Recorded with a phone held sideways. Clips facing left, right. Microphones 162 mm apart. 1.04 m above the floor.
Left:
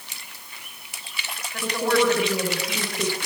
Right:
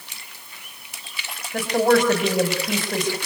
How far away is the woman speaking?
About 5.5 m.